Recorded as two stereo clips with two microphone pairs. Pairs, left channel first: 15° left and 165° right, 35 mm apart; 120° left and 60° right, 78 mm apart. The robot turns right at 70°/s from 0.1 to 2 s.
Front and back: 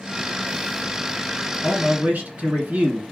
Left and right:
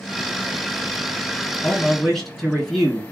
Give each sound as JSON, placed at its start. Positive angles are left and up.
{"t": 1.6, "sound": "a man speaking", "azimuth_deg": 180, "distance_m": 2.5}